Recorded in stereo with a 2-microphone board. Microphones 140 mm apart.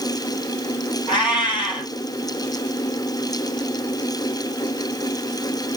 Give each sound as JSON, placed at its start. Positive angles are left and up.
{"t": 1.1, "sound": "a cat meowing", "side_deg": 35, "distance_m": 3.0}